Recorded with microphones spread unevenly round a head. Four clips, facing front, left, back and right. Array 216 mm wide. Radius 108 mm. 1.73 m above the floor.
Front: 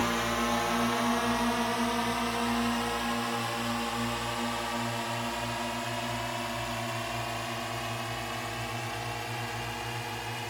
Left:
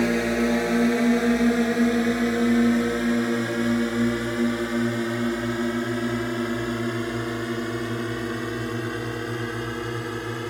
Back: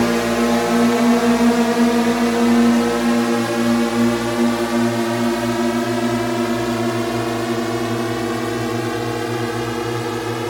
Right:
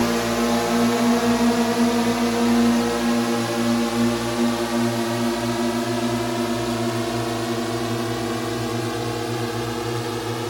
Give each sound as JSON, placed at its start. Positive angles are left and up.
{"t": 0.0, "sound": "a drone", "azimuth_deg": 175}